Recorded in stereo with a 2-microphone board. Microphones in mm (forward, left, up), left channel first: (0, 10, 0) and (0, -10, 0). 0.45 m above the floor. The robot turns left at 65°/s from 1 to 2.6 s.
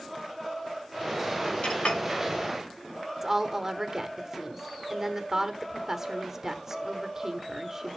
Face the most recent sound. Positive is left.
turn(degrees=-25)  # may be behind; listen again after turning